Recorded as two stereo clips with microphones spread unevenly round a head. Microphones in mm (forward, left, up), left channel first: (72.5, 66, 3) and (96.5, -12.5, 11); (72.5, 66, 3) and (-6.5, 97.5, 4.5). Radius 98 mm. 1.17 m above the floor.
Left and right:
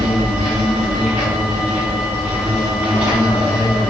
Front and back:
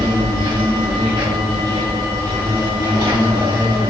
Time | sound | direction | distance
0.0 | an insect | 120° left | 1.9 m